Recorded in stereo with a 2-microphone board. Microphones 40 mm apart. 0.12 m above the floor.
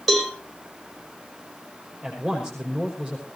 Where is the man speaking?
20° right (ahead or behind), 5 m.